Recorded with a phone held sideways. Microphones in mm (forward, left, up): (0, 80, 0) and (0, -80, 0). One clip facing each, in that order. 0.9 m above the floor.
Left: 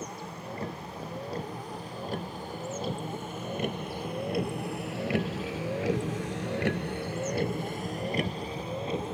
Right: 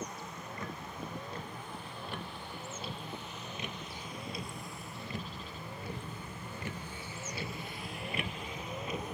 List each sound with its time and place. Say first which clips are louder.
0.0 s a vehicle: left 4 dB; 30° left (ahead or behind); by 9.1 s 25° left (ahead or behind)